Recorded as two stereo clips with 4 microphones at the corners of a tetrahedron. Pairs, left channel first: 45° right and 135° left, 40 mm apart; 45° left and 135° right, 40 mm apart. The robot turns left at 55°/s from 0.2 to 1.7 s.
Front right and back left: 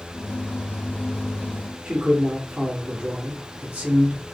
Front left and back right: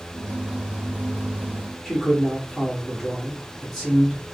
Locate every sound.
1.9 s a man speaking: 120° left, 1.0 m